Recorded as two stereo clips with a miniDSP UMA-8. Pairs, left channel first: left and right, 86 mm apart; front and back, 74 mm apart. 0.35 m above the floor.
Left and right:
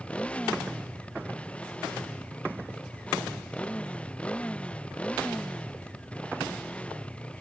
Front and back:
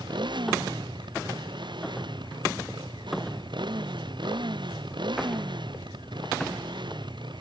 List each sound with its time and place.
0.0 s a motorcycle: 165° left